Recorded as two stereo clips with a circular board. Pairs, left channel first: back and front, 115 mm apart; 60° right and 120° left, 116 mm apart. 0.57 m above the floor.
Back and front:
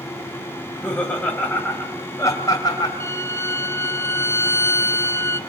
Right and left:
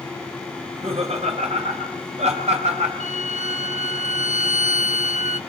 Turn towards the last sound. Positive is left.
turn(degrees=115)